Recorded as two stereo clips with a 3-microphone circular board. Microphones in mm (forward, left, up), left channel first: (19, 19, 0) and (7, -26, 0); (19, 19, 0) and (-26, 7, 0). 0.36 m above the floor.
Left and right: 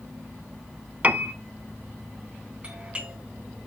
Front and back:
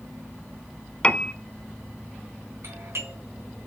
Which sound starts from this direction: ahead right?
A piano, at 1.0 s.